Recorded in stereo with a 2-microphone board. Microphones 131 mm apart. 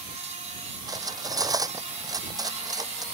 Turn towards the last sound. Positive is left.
turn(degrees=-30)  # may be behind; listen again after turning